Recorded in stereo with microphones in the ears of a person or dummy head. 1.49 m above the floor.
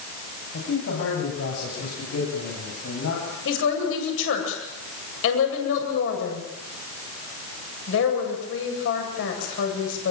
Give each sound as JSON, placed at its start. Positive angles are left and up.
{"t": 0.5, "sound": "a man speaking", "side_deg": 85, "distance_m": 9.5}
{"t": 3.5, "sound": "a woman speaking", "side_deg": 80, "distance_m": 8.0}